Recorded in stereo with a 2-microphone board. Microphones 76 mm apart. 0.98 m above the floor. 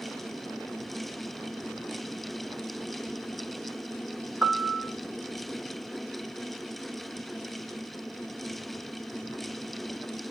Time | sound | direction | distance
4.4 | a piano | 15° right (ahead or behind) | 1.2 m